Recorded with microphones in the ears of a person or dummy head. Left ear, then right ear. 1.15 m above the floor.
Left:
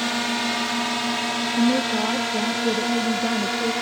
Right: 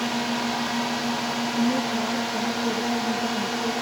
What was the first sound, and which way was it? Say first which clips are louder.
A drone: left 2 dB; 60° left (ahead or behind).